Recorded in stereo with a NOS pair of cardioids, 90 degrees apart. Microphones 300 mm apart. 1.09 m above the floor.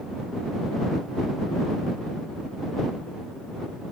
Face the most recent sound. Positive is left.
No sound to turn to.